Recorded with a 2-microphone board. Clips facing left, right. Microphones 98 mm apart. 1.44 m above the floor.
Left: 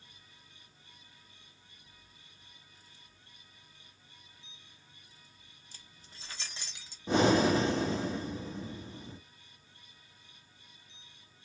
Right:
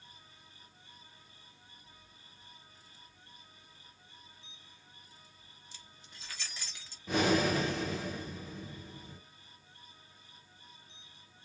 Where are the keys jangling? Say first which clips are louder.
Right 1 dB; 45° left (ahead or behind), 0.8 m; by 7.0 s 15° left (ahead or behind), 1.1 m.